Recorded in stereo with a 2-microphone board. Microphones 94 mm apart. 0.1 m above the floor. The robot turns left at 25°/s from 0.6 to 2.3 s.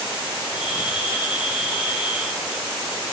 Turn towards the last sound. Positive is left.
No sound to turn to.